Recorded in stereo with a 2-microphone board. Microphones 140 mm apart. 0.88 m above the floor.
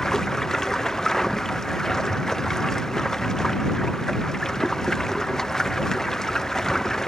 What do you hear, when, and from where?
0.0 s running water: 5° left (ahead or behind)